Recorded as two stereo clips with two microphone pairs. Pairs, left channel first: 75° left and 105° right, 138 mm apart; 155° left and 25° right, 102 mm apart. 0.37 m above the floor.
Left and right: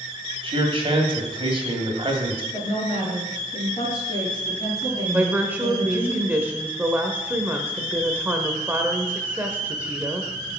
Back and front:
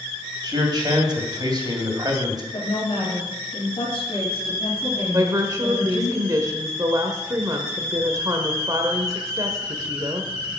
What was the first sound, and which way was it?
A man speaking, 65° right.